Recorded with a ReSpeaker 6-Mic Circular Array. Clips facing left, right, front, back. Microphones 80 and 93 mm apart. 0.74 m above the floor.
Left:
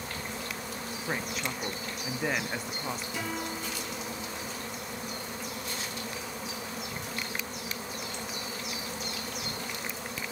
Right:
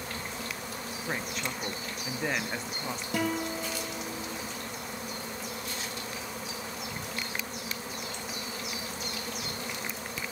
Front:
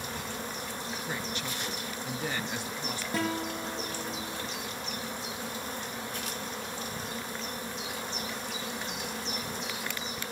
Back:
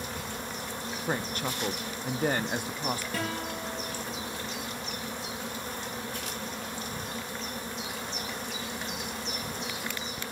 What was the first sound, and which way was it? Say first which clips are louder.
A woman speaking: left 1 dB, back 7 dB; 175° left.